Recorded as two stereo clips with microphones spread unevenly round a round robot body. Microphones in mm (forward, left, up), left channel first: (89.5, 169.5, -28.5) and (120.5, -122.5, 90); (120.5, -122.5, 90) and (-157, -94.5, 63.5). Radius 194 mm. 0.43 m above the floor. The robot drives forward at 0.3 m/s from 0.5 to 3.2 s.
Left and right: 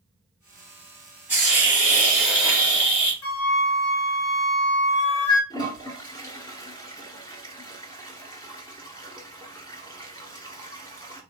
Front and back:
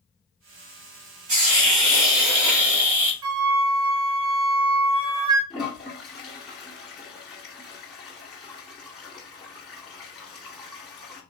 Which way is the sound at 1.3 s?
175° right.